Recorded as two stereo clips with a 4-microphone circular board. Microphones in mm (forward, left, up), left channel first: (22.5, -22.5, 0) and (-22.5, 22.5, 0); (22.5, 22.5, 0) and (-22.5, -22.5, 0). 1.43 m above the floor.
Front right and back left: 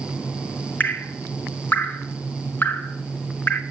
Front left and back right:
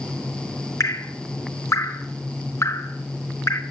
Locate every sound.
0.8 s dripping: 10° left, 0.6 m